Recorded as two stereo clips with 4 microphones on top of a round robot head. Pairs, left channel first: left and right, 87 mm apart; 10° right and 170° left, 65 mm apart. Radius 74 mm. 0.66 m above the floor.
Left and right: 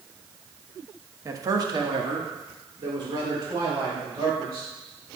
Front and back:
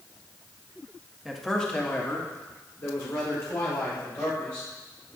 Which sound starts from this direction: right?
A man speaking, at 1.2 s.